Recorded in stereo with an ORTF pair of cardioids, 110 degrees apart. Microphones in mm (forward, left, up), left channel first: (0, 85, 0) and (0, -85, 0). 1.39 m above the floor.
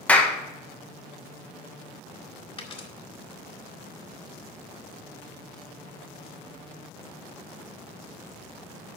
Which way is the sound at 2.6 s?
30° left.